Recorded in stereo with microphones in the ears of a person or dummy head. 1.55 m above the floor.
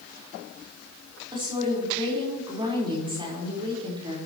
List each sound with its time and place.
1.3 s a woman speaking: 25° right (ahead or behind), 4 m